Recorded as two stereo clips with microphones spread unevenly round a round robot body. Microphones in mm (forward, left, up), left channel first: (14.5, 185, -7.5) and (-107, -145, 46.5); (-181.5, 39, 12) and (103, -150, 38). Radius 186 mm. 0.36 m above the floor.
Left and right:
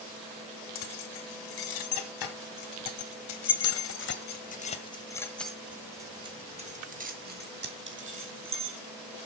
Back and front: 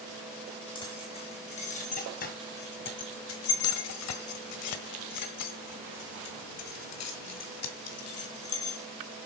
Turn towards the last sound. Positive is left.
turn(degrees=-165)